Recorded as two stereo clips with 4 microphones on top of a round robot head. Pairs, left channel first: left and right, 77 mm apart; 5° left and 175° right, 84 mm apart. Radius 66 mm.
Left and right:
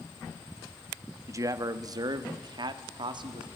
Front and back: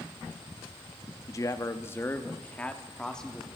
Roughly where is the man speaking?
Ahead right.